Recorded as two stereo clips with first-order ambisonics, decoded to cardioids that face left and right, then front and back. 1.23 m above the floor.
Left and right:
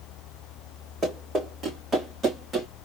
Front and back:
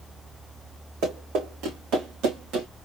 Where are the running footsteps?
160° right, 4 m; by 2.7 s 170° right, 3 m.